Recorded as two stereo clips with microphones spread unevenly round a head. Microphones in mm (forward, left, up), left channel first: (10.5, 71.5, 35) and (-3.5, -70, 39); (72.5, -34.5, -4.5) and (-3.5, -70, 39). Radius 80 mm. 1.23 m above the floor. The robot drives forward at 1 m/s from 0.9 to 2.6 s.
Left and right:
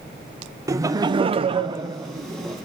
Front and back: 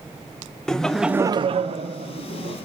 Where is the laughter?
30° right, 0.6 m; by 2.5 s 170° right, 1.3 m.